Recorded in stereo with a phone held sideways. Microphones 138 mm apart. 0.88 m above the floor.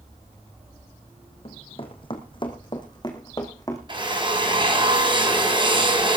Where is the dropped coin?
I don't hear a dropped coin.